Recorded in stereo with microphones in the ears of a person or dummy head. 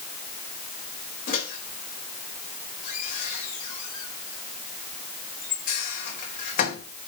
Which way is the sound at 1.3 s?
35° left (ahead or behind).